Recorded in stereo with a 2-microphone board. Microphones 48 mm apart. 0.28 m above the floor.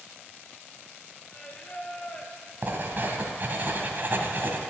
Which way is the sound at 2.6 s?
45° right (ahead or behind).